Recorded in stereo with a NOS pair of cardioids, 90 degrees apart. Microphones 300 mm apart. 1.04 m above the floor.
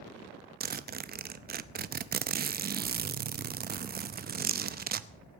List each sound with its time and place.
0.6 s a zipper: 30° right, 0.6 m